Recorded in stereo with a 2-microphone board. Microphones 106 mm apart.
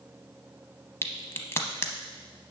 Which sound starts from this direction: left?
A crack, at 1.0 s.